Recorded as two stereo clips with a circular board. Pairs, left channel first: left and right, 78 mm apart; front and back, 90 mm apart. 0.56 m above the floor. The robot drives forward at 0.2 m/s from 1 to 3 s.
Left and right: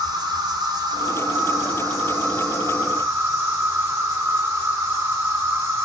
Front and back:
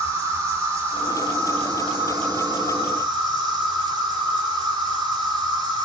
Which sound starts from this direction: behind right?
An insect, at 0.0 s.